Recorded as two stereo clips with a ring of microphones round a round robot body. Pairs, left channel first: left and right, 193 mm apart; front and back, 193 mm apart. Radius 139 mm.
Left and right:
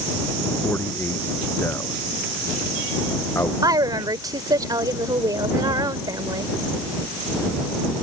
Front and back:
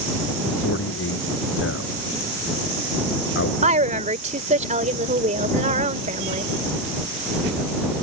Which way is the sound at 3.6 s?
150° right.